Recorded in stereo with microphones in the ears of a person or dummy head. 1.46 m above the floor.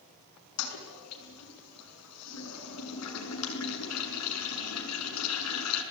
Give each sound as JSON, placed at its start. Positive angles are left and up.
{"t": 0.6, "sound": "a toilet flushing", "side_deg": 80, "distance_m": 6.5}